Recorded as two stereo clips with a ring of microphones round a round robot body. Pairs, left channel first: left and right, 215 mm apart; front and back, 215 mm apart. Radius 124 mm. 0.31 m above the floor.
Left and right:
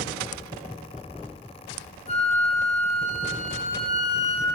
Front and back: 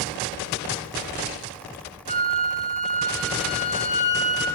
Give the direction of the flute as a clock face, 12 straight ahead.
11 o'clock.